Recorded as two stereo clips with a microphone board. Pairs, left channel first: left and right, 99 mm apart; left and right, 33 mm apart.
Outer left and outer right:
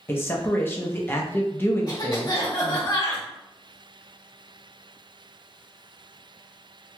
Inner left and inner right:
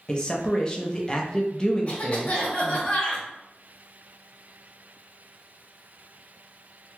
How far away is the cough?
About 1.4 m.